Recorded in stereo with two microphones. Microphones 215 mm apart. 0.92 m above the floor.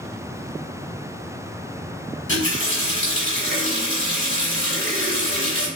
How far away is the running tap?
About 1.5 m.